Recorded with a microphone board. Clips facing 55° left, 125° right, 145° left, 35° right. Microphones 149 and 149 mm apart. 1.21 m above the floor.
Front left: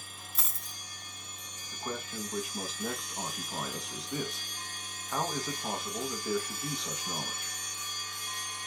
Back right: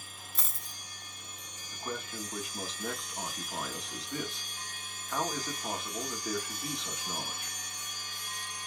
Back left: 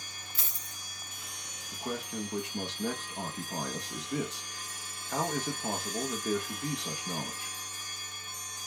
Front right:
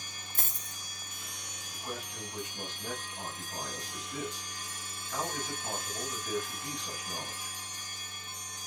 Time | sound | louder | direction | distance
0.3 | a dropped coin | front left 1 dB, front right 5 dB | 35° right | 0.9 m
1.7 | a man speaking | front left 1 dB, back left 6 dB | 145° left | 1.1 m